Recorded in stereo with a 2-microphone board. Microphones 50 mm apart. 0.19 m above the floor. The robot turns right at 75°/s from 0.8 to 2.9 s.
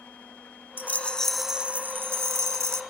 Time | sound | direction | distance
0.8 | a rattle | 135° left | 0.6 m